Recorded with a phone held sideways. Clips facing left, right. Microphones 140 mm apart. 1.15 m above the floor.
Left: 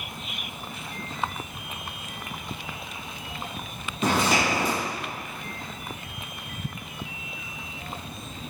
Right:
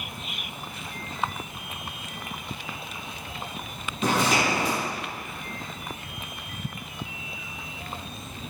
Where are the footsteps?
Centre (ahead or behind), 1.8 m.